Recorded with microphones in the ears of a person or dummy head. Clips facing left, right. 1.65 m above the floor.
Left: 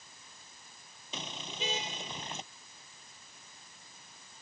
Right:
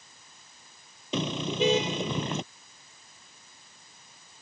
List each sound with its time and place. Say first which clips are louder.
1.1 s a car horn: right 15 dB; 60° right (ahead or behind)